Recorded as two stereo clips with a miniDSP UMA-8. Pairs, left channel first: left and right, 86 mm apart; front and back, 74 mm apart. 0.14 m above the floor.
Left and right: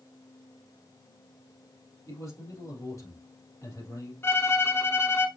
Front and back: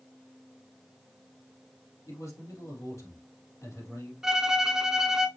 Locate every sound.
2.1 s a man speaking: 40° left, 3.5 m
4.2 s a violin: 105° left, 0.7 m